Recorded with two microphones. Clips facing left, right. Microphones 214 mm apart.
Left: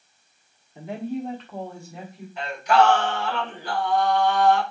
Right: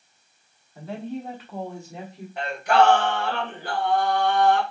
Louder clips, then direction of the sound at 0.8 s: Left 3 dB; 20° left (ahead or behind).